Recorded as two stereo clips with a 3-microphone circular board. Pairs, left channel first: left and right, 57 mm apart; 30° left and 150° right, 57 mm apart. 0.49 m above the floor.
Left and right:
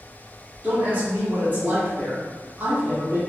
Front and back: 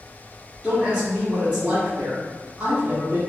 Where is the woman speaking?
100° right, 1.4 m.